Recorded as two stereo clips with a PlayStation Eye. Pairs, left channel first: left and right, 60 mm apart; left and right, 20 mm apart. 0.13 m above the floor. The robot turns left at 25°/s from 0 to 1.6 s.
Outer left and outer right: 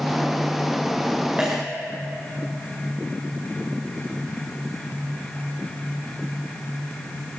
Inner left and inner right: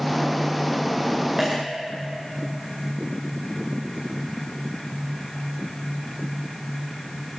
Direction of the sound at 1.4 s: 20° right (ahead or behind).